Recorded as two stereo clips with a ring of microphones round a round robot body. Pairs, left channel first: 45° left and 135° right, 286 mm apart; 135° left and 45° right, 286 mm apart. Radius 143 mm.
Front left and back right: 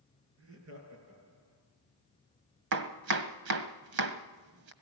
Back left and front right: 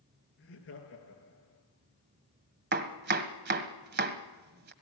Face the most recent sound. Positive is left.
turn(degrees=-100)